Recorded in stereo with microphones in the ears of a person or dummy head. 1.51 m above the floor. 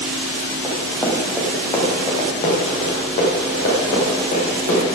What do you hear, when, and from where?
0.6 s running footsteps: 5° right (ahead or behind), 3.5 m; by 4.9 s 55° left (ahead or behind), 8 m